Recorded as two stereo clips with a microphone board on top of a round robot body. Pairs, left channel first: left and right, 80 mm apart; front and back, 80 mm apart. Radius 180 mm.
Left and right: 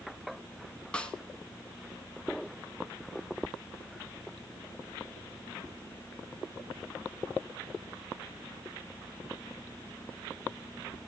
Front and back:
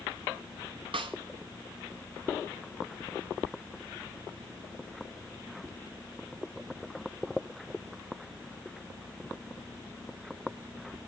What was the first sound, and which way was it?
A snare drum, 165° left.